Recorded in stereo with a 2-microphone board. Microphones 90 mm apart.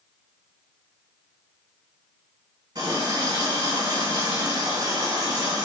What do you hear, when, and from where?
2.8 s a running tap: 50° right (ahead or behind), 1.3 m